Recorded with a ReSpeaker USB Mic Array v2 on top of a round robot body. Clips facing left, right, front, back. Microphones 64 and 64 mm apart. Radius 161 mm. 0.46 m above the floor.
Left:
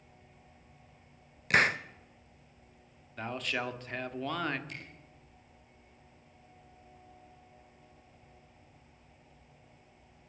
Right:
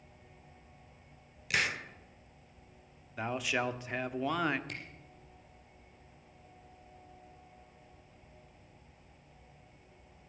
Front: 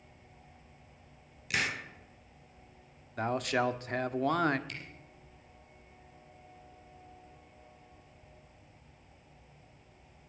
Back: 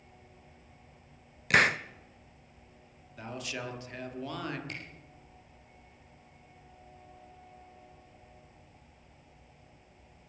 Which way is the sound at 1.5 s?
140° left.